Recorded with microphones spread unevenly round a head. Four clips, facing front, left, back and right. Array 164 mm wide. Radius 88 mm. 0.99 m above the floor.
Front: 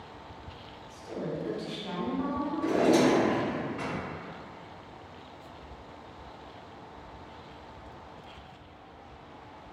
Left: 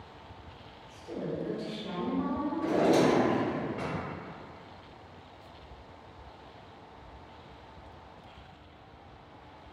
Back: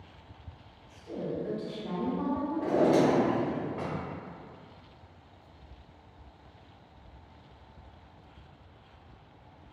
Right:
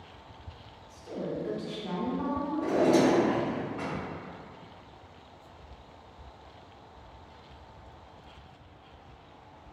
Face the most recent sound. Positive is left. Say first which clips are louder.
# right 1 dB, front 1 dB
turn(degrees=175)